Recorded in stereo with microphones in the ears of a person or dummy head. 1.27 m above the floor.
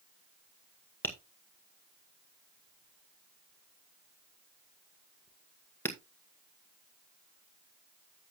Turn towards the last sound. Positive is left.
turn(degrees=10)  # may be behind; listen again after turning